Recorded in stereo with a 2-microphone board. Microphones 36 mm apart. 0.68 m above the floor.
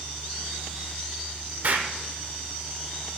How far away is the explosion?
About 0.8 m.